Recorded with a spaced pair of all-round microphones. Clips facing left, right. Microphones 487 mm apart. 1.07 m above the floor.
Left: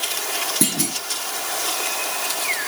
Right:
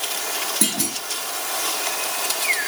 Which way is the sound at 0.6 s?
45° left (ahead or behind).